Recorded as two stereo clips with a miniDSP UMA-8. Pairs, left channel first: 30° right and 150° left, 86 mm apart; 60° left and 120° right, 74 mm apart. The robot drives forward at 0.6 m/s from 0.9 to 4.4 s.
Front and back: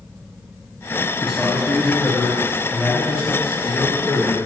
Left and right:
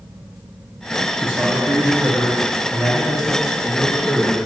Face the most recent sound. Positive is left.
turn(degrees=-160)